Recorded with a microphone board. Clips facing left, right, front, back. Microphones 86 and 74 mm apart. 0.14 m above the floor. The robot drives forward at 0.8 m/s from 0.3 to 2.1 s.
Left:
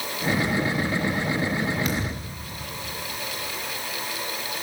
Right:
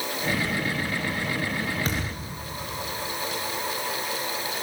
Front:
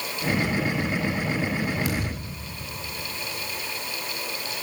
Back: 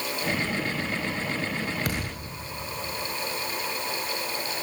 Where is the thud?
145° right, 5 m.